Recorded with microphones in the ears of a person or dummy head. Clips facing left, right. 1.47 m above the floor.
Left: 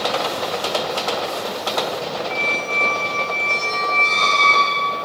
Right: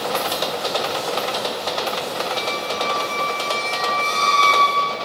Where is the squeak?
55° right (ahead or behind), 1.6 m.